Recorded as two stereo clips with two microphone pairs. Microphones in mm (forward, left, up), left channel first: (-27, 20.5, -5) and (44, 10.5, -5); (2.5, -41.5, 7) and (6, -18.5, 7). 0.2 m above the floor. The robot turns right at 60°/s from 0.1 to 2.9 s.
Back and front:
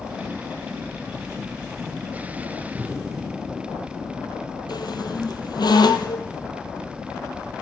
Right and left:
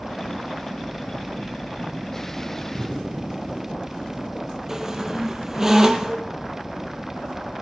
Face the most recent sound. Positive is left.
turn(degrees=150)